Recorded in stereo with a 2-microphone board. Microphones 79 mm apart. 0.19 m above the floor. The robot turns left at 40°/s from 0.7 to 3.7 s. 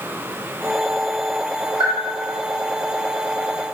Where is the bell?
55° left (ahead or behind), 2 m; by 2.0 s 45° left (ahead or behind), 2 m.